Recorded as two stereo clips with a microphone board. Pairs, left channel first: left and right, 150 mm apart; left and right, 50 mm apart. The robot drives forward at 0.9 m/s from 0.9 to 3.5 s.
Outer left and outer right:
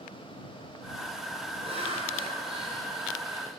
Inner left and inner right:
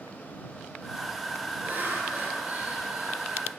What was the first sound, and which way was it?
Laughter, 40° right (ahead or behind).